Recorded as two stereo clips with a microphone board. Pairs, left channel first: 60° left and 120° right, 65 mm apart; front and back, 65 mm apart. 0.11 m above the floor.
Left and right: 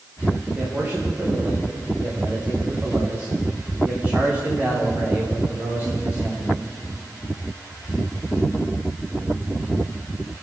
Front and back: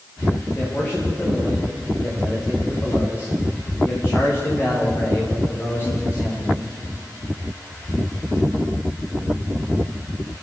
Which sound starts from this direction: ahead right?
A man speaking, at 0.6 s.